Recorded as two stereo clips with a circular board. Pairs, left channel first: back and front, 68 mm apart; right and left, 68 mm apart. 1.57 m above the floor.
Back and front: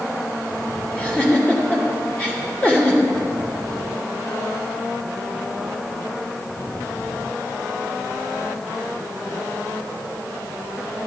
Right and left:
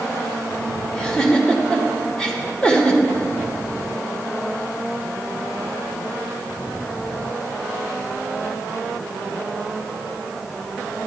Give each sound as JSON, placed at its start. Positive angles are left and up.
{"t": 0.9, "sound": "a giggle", "azimuth_deg": -145, "distance_m": 1.3}